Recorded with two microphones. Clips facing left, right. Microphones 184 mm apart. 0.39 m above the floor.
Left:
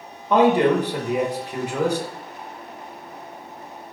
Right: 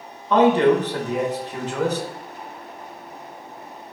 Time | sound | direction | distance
0.3 | a man speaking | 15° left (ahead or behind) | 1.0 m